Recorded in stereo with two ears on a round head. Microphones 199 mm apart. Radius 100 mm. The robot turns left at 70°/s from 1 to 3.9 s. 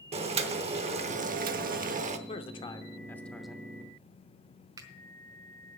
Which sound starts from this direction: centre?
A finger snap, at 4.8 s.